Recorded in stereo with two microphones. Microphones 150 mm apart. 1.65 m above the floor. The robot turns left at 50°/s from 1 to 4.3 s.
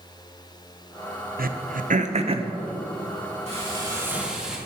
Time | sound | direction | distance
1.4 | throat clearing | 75° right (ahead or behind) | 0.7 m
3.5 | frying | 135° right | 3 m